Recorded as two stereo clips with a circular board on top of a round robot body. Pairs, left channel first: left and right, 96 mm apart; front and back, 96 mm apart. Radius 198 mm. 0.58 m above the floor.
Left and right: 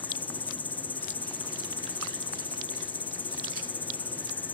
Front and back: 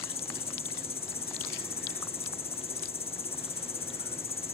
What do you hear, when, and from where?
0.0 s an insect: 15° left